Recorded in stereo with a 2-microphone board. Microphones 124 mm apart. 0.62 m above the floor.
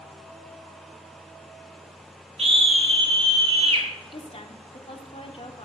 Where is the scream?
50° right (ahead or behind), 1.7 m.